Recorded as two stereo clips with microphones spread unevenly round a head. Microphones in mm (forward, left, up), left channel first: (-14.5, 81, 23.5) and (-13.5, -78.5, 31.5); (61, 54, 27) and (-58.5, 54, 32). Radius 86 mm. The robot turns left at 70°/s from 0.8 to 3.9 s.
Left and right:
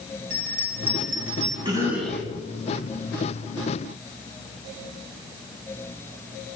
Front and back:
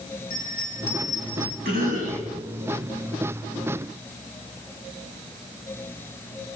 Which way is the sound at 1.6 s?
150° right.